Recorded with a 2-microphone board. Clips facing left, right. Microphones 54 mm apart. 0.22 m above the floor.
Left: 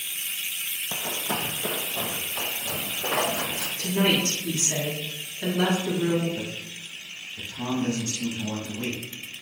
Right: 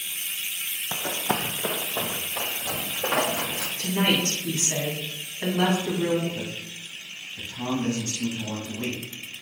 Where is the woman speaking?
40° right (ahead or behind), 1.4 m.